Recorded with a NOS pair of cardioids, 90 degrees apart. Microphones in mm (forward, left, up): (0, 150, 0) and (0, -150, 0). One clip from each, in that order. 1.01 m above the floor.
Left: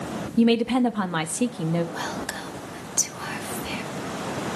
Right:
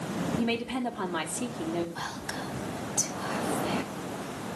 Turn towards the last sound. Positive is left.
turn(degrees=60)